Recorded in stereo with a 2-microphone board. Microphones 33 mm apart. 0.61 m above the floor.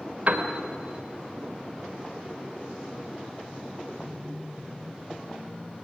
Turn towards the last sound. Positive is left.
turn(degrees=-45)  # may be behind; listen again after turning